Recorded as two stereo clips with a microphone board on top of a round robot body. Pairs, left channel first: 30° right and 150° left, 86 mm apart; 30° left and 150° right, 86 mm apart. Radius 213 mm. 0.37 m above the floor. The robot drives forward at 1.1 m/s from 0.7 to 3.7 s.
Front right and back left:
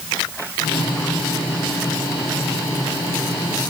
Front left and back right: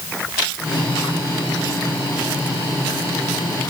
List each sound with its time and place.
Only background noise.